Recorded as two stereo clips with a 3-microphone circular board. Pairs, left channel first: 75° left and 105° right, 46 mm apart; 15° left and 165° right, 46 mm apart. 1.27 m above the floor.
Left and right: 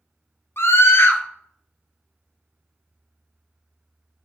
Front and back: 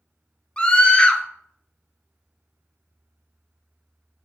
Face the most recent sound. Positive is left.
turn(degrees=80)